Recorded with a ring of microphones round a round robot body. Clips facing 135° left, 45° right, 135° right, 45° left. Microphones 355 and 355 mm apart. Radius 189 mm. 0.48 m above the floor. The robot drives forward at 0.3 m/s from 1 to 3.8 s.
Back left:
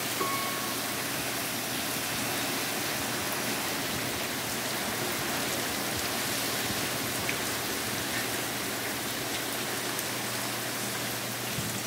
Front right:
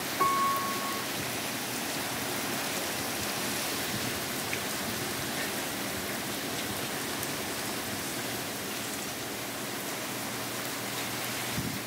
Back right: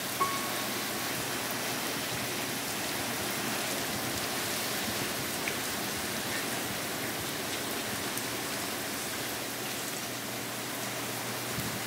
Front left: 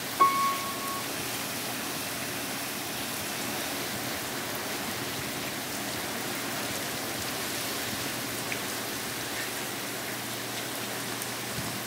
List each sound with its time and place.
0.2 s a piano: 25° left, 0.6 m